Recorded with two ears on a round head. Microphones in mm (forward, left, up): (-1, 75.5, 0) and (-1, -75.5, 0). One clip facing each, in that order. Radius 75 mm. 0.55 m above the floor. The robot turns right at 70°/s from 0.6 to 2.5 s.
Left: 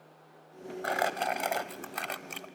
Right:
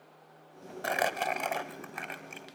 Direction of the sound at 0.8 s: 35° right.